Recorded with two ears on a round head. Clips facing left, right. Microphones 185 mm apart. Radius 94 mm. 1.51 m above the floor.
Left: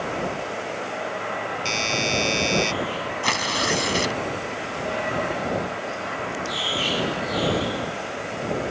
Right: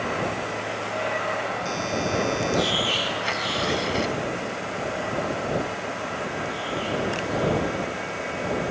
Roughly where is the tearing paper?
Left.